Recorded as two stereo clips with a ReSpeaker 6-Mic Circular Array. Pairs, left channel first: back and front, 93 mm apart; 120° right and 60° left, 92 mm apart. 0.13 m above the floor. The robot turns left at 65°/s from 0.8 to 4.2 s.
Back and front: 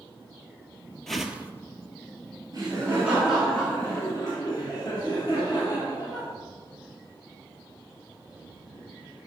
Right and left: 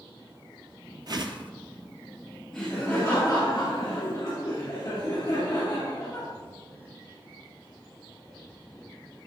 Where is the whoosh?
95° left, 0.7 m; by 1.5 s 65° left, 0.7 m.